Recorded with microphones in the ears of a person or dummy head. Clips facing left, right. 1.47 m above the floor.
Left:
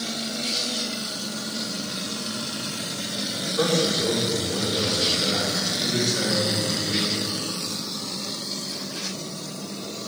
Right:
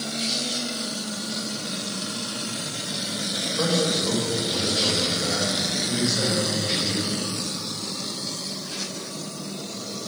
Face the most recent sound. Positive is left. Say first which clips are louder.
# left 1 dB
turn(degrees=55)  # may be behind; listen again after turning